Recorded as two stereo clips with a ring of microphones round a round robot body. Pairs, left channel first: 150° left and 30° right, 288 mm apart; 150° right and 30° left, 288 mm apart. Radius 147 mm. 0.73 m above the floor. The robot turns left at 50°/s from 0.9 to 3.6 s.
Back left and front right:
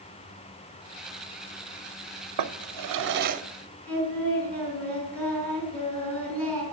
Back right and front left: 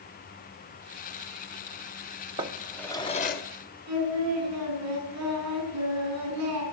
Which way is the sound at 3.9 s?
65° left.